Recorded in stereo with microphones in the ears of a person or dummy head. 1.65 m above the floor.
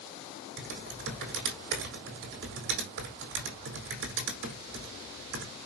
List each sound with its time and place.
0.6 s typing on a keyboard: 60° right (ahead or behind), 3 m